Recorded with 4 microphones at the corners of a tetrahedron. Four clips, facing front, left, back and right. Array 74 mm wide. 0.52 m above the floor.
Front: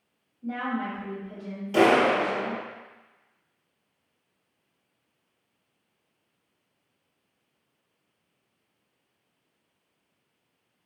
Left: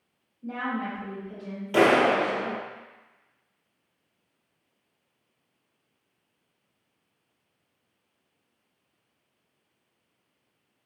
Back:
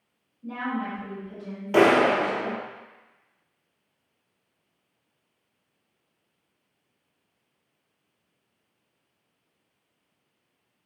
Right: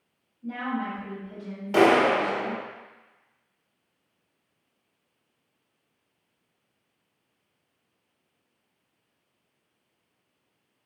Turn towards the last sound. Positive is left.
turn(degrees=-155)